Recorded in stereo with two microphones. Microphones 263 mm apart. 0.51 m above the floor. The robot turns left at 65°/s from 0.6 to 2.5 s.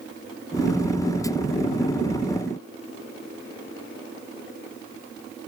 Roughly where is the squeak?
No squeak in this recording.